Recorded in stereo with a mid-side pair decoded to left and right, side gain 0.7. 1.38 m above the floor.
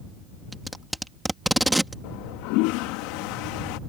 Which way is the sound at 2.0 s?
70° left.